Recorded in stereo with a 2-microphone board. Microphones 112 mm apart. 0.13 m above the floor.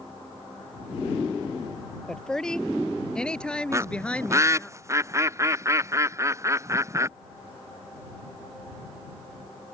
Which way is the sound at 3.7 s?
25° right (ahead or behind).